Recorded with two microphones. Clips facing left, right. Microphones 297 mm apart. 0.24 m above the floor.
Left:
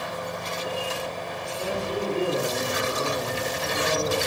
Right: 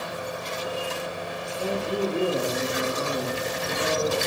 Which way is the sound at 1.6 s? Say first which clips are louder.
Right 3 dB; 30° left (ahead or behind).